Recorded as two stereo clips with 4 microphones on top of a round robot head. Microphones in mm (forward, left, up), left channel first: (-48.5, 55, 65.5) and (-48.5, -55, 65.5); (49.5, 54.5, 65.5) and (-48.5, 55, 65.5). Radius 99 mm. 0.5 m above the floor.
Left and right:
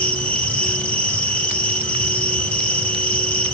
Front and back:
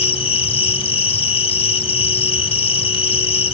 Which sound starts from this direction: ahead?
An insect, at 0.0 s.